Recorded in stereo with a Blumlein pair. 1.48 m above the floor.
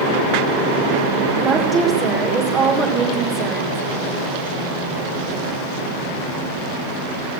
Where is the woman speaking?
20° right, 4 m.